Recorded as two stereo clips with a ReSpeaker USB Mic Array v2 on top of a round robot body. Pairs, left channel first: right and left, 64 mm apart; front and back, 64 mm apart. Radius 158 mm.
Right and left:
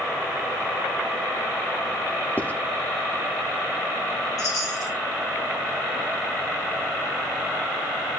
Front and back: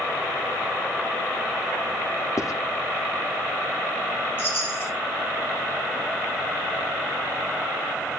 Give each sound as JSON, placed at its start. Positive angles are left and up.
{"t": 2.4, "sound": "writing", "azimuth_deg": -25, "distance_m": 1.5}
{"t": 4.4, "sound": "a chime", "azimuth_deg": -55, "distance_m": 7.5}